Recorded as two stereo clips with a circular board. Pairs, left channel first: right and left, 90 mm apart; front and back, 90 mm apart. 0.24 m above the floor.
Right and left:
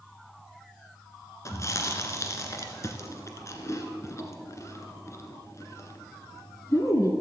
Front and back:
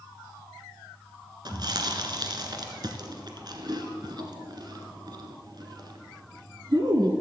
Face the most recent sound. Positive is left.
turn(degrees=-145)